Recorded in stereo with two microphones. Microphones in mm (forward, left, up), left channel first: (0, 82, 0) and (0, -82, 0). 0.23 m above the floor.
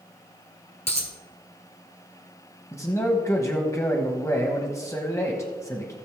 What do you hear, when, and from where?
0.9 s a dropped coin: 40° left (ahead or behind), 2.0 m
2.7 s a man speaking: 20° left (ahead or behind), 1.1 m